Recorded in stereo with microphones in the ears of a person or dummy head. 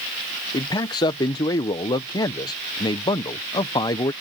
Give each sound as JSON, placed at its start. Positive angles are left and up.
{"t": 0.5, "sound": "a man speaking", "side_deg": 25}